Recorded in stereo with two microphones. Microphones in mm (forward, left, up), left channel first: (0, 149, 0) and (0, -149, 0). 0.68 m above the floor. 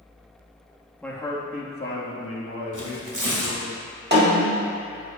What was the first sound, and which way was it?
A man speaking, 5° left (ahead or behind).